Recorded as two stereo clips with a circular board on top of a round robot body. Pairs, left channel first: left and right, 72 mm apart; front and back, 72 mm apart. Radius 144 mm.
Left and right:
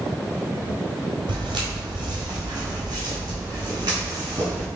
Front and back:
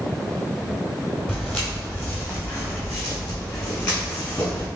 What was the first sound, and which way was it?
Footsteps, 85° right.